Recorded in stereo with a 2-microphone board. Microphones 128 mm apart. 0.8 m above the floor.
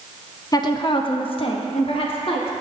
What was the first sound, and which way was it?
A woman speaking, 30° left (ahead or behind).